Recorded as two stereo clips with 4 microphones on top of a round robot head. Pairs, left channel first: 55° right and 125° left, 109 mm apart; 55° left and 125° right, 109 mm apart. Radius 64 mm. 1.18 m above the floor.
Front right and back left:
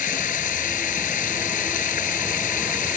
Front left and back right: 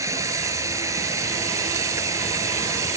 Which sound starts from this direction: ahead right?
Running water, at 0.0 s.